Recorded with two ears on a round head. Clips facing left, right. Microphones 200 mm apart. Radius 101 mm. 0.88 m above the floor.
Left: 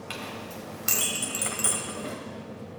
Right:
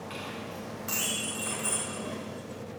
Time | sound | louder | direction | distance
0.1 | a clink | left 3 dB | 70° left (ahead or behind) | 3 m